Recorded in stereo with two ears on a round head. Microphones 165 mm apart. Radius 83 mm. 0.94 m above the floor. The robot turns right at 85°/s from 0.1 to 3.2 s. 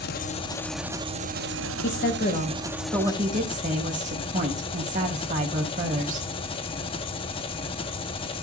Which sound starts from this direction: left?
A woman speaking, at 1.8 s.